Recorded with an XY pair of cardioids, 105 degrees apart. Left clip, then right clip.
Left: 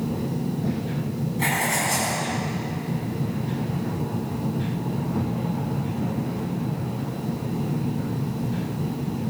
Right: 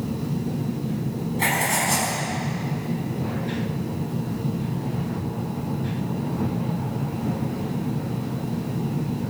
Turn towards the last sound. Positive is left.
turn(degrees=-25)